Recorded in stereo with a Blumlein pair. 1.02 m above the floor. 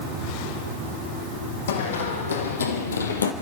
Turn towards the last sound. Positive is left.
turn(degrees=75)